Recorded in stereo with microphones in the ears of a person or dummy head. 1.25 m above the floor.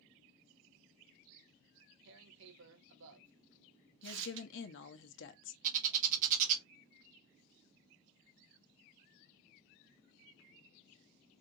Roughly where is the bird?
Right.